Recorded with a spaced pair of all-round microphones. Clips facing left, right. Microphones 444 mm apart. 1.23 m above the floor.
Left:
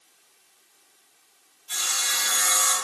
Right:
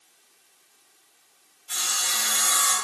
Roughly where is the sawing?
Right.